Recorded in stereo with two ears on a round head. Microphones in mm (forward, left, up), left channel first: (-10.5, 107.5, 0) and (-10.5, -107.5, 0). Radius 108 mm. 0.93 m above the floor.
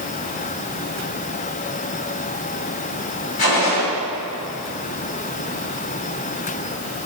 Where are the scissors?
No scissors in this recording.